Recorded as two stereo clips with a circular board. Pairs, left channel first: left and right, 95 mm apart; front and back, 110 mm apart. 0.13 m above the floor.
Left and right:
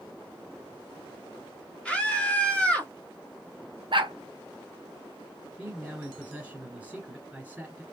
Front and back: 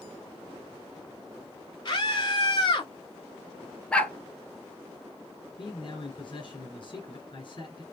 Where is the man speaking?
15° right, 2.5 m.